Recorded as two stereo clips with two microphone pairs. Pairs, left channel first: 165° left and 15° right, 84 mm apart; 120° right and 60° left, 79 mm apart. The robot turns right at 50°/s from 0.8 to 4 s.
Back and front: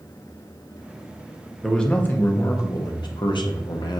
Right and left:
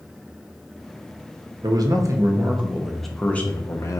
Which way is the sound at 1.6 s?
80° left.